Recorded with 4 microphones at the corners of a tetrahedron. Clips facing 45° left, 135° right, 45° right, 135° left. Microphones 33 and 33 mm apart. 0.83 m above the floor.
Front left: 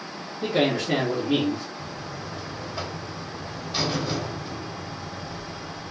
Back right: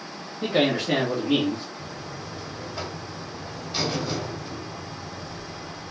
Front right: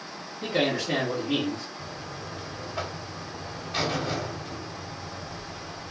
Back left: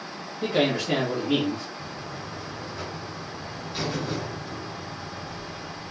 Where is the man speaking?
155° right, 1.2 m.